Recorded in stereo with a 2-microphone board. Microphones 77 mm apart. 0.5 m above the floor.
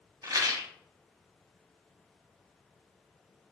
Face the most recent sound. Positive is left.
turn(degrees=-50)  # may be behind; listen again after turning